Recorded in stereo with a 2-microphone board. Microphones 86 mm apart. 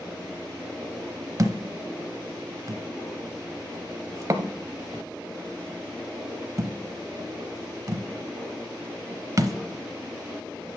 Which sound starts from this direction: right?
A thud, at 1.4 s.